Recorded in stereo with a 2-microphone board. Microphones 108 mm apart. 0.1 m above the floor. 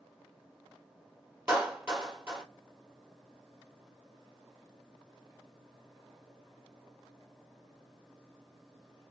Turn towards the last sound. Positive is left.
turn(degrees=-20)  # may be behind; listen again after turning